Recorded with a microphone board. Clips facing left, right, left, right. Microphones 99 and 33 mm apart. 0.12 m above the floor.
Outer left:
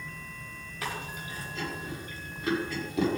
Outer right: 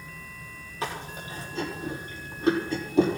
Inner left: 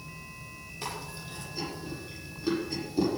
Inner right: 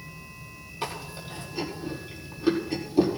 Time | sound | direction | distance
0.8 | chewing | 30° right (ahead or behind) | 5.5 m